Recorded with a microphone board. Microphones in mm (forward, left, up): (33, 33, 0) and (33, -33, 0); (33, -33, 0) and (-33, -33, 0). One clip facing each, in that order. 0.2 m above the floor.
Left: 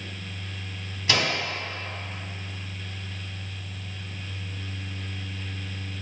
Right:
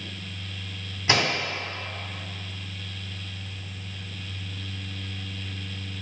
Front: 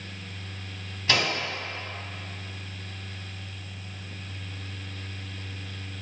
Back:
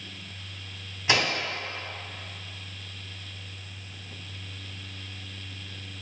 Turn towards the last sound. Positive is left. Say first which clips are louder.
# right 2 dB, back 1 dB
turn(degrees=-120)